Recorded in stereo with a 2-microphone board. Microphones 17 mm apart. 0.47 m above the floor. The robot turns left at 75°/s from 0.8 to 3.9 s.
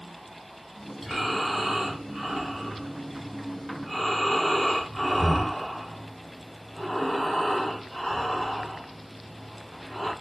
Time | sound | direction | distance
1.0 | breathing | 5° left | 1.1 m